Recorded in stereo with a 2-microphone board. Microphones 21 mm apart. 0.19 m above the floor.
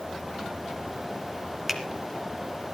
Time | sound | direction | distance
1.7 | a finger snap | 10° right (ahead or behind) | 2.0 m